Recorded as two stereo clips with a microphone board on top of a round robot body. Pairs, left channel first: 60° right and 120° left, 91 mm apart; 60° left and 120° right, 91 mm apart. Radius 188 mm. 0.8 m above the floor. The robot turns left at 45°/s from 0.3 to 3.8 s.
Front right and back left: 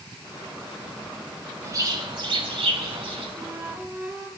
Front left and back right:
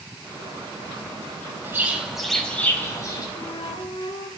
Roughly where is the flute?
Left.